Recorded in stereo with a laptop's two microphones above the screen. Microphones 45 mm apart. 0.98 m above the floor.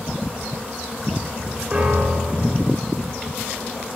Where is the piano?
25° right (ahead or behind), 0.9 m.